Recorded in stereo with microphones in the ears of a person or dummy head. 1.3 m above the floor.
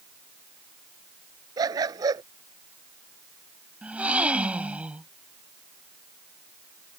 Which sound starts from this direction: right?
A dog barking, at 1.6 s.